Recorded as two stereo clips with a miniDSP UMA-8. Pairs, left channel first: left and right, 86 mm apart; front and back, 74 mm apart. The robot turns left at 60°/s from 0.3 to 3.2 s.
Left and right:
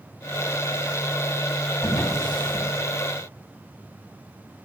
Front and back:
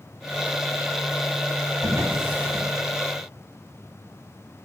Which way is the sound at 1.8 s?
145° left.